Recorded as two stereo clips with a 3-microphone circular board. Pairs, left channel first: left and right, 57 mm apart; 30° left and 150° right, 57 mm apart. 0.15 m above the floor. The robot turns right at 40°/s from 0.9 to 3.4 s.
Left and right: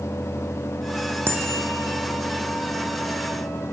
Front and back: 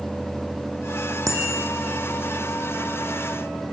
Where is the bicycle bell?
135° right, 6 m; by 1.7 s 115° right, 6 m.